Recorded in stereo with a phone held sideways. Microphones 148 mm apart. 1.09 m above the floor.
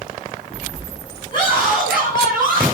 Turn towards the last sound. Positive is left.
turn(degrees=30)  # may be behind; listen again after turning